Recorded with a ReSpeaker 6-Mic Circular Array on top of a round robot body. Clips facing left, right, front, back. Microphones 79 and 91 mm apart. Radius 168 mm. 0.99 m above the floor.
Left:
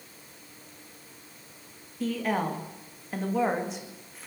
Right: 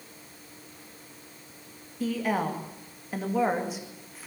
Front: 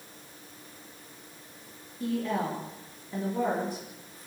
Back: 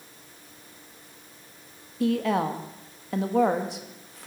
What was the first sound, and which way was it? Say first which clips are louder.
A woman speaking: right 1 dB, back 6 dB; straight behind.